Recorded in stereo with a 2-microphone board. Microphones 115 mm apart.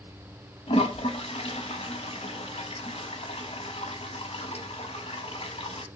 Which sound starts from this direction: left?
A toilet flushing, at 0.7 s.